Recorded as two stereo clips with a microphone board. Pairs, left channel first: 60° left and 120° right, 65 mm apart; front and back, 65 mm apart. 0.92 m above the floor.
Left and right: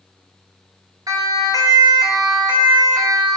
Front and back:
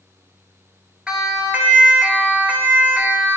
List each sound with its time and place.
1.1 s a siren: 105° right, 3 m; by 3.4 s 125° right, 3.5 m